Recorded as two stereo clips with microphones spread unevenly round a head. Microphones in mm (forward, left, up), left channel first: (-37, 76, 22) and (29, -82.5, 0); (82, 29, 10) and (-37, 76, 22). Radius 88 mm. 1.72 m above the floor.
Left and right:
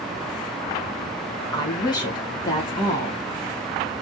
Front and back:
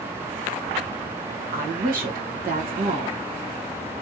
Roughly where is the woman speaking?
Behind.